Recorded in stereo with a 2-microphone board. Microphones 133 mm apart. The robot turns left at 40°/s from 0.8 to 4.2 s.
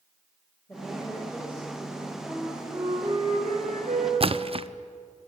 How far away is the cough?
No cough in this recording.